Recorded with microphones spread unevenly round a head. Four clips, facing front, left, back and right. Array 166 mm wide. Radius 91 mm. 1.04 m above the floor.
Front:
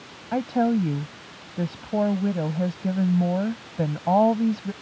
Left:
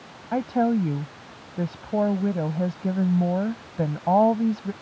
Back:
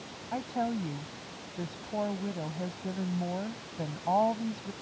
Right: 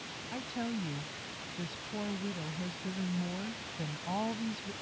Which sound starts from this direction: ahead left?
A woman speaking, at 0.3 s.